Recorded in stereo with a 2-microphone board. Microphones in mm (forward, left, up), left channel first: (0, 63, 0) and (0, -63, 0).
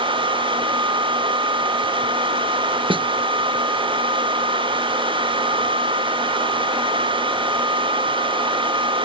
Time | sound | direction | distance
2.9 | a snare drum | 45° right (ahead or behind) | ?